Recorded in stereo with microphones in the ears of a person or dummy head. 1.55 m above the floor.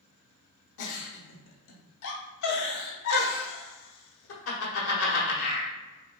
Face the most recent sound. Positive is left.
turn(degrees=70)  # may be behind; listen again after turning